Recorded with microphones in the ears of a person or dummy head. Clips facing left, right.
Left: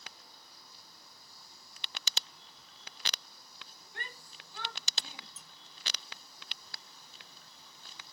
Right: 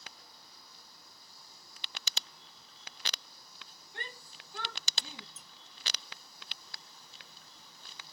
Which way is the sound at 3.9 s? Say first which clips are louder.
Right 2 dB; 15° right (ahead or behind).